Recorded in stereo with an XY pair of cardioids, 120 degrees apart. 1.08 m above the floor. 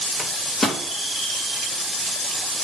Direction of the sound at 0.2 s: 25° left.